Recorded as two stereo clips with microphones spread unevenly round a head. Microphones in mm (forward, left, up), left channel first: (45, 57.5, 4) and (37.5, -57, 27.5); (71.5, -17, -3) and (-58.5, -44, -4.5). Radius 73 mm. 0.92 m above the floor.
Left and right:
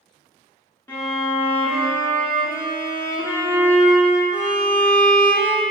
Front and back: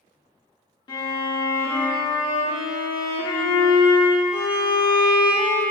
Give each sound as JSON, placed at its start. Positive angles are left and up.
{"t": 0.9, "sound": "a violin", "azimuth_deg": 10, "distance_m": 0.5}